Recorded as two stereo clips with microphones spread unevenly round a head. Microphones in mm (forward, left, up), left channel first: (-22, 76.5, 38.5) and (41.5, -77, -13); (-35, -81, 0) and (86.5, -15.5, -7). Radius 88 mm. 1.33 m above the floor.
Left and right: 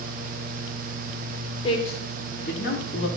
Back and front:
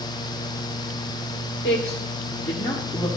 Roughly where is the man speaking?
Behind.